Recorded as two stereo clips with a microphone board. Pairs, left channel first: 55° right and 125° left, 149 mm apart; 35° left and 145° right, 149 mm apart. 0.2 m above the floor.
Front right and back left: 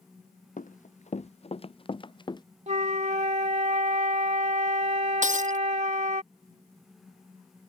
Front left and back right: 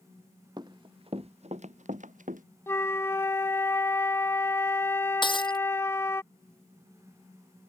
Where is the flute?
105° left.